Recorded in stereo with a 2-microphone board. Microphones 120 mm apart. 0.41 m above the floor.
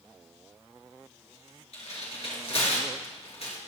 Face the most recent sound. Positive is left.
turn(degrees=55)  # may be behind; listen again after turning